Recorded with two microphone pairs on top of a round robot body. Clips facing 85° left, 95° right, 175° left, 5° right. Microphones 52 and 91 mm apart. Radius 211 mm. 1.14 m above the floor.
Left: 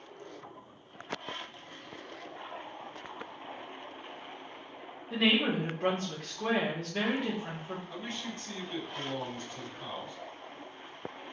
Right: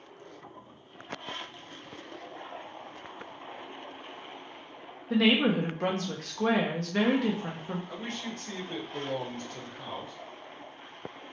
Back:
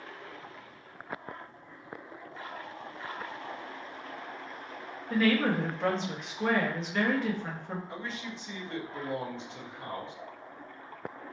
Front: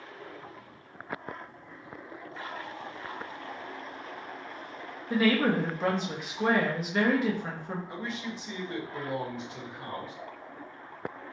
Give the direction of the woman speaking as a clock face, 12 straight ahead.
3 o'clock.